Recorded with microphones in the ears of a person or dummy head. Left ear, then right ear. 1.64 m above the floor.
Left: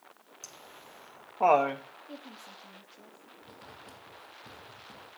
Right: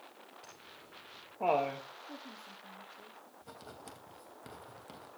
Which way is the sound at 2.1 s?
20° left (ahead or behind).